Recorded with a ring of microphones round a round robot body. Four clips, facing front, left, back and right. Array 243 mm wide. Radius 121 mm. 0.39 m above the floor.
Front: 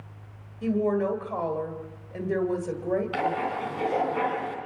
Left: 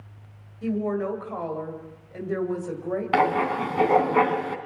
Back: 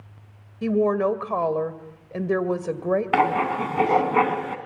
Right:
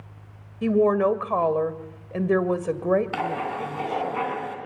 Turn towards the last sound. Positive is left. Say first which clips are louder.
# left 6 dB, back 7 dB
turn(degrees=150)